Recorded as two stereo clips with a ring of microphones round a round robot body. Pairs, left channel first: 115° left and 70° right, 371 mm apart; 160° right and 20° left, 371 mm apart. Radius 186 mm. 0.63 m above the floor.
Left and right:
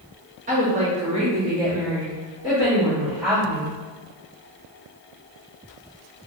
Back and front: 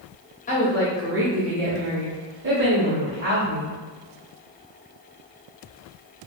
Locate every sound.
0.5 s a woman speaking: 115° right, 1.1 m; by 3.8 s 25° left, 2 m